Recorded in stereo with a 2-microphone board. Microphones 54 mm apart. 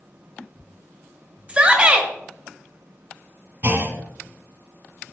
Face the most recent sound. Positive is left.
turn(degrees=-40)  # may be behind; listen again after turning